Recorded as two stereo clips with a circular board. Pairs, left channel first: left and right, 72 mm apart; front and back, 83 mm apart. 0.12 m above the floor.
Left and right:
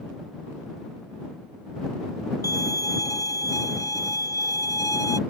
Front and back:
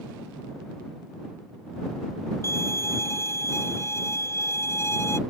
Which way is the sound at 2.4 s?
55° left.